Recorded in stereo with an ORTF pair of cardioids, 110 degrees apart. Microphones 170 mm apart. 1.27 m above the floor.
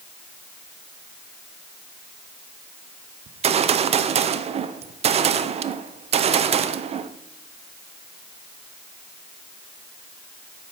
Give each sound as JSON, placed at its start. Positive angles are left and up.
{"t": 3.3, "sound": "a gunshot", "azimuth_deg": -40, "distance_m": 0.5}